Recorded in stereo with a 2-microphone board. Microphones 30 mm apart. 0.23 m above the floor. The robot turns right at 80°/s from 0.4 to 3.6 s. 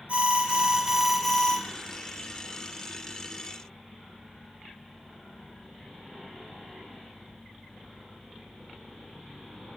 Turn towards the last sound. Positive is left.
turn(degrees=-160)